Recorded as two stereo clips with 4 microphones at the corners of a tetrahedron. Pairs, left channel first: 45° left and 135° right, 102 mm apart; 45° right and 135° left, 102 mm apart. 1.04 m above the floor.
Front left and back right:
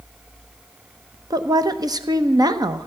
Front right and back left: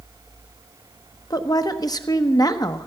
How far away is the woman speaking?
About 1.0 m.